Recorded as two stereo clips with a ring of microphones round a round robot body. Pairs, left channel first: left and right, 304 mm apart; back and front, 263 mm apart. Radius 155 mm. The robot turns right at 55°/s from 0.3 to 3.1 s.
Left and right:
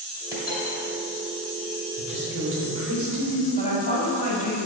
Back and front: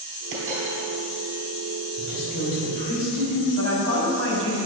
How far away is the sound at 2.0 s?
About 2 m.